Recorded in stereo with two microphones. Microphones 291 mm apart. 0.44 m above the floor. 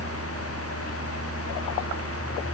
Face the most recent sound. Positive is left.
No sound to turn to.